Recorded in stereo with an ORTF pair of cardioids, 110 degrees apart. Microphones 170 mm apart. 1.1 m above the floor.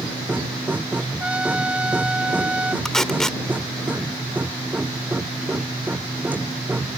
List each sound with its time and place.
0.0 s a machine running: 10° right
1.2 s a trumpet: 5° right
2.9 s tape being pulled: 5° left